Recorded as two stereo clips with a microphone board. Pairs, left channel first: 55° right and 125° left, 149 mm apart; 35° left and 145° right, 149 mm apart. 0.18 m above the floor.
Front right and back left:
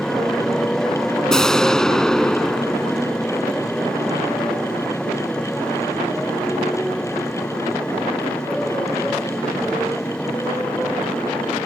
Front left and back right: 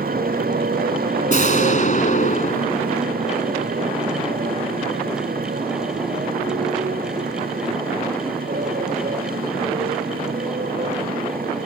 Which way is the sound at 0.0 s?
140° right.